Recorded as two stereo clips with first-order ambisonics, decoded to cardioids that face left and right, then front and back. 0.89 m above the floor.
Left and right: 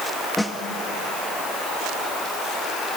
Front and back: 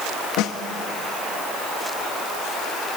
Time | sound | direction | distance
0.4 | a snare drum | 5° left | 1.4 m